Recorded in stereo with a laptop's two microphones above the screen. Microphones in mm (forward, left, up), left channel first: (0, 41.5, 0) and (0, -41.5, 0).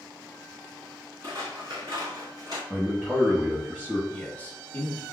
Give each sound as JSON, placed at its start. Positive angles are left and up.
{"t": 1.2, "sound": "scissors", "side_deg": -60, "distance_m": 1.7}
{"t": 2.7, "sound": "a man speaking", "side_deg": -20, "distance_m": 0.9}
{"t": 4.1, "sound": "a man speaking", "side_deg": 20, "distance_m": 0.7}